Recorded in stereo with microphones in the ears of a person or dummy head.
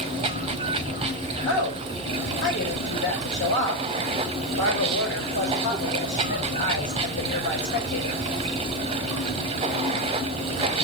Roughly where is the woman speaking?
Left.